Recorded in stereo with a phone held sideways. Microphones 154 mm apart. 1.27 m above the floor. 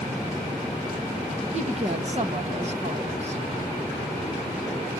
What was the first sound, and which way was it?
A woman speaking, 45° right (ahead or behind).